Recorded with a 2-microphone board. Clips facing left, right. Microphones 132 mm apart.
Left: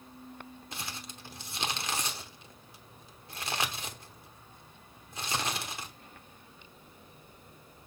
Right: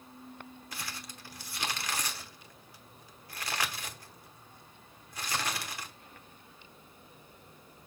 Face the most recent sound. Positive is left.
turn(degrees=25)  # may be behind; listen again after turning